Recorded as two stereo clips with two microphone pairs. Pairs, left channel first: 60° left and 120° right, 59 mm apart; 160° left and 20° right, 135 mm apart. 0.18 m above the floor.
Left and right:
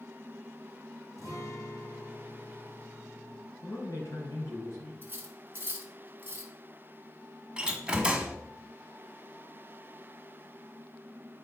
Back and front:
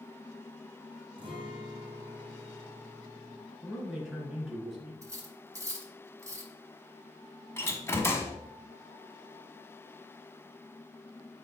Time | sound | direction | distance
1.2 | a guitar | 35° left | 3 m
3.6 | a man speaking | 70° left | 3 m
5.0 | cutlery clinking | 75° right | 1.3 m
7.6 | a door slam | 165° right | 0.9 m